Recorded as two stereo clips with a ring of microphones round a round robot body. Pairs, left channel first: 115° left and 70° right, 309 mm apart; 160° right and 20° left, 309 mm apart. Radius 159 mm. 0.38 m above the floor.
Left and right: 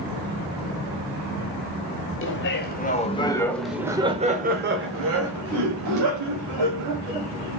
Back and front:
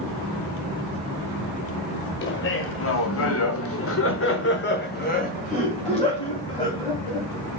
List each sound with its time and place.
2.2 s laughter: 155° left, 1.9 m; by 7.6 s 80° right, 3.5 m